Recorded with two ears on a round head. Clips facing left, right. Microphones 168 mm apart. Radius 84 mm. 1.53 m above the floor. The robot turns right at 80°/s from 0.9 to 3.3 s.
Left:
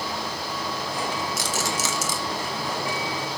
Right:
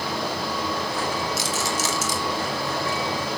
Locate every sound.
1.4 s a rattle: 45° left (ahead or behind), 3 m; by 2.2 s 70° left (ahead or behind), 3 m